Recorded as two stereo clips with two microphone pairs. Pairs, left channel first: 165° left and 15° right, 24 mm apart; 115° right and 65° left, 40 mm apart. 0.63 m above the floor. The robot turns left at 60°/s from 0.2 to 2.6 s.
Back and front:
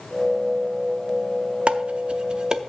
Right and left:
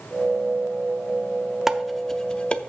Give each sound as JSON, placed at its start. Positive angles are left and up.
{"t": 1.7, "sound": "dishes clattering", "azimuth_deg": -10, "distance_m": 0.6}